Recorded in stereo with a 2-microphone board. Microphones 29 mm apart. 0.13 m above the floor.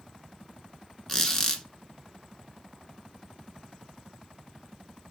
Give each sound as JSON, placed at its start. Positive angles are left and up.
{"t": 1.1, "sound": "a squeak", "side_deg": 20, "distance_m": 0.6}